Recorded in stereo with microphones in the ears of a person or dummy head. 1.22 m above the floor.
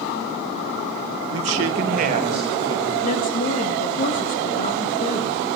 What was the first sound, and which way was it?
A man speaking, 85° right.